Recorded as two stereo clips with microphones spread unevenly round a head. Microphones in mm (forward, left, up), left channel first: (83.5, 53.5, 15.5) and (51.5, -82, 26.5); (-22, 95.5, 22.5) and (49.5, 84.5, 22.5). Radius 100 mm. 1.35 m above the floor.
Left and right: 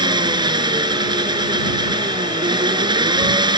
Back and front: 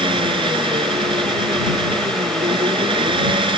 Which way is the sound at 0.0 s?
45° right.